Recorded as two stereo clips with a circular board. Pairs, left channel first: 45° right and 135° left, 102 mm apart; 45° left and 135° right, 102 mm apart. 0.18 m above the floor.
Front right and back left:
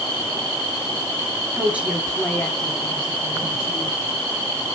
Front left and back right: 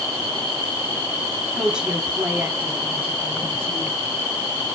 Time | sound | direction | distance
1.6 | a woman speaking | 150° left | 1.1 m